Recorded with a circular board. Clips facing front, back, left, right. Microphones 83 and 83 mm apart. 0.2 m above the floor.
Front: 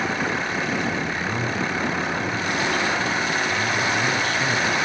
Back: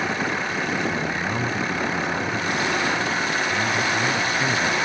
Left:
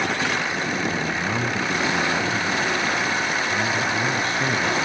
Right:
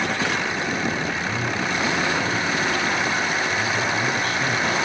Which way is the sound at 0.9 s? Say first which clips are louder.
Back 1 dB, left 1 dB; 120° left.